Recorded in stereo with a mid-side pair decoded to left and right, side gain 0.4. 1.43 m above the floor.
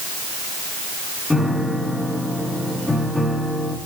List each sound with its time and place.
1.3 s a piano: 10° left, 2.5 m